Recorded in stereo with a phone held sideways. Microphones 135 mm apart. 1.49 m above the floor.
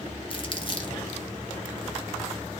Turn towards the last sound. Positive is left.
turn(degrees=40)  # may be behind; listen again after turning